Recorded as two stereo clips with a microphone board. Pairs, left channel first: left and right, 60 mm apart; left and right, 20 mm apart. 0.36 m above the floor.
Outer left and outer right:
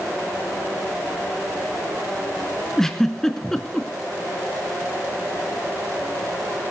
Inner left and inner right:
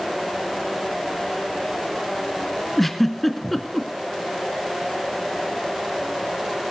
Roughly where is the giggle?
Centre.